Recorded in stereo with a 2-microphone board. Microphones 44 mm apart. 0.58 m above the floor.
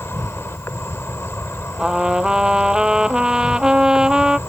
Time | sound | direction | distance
0.0 | an insect | 75° left (ahead or behind) | ?
1.8 | a trumpet | 20° right (ahead or behind) | ?